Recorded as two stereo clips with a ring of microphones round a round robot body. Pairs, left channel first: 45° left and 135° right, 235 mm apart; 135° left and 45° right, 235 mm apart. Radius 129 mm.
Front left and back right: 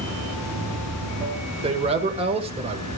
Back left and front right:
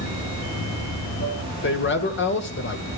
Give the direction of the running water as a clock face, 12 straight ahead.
7 o'clock.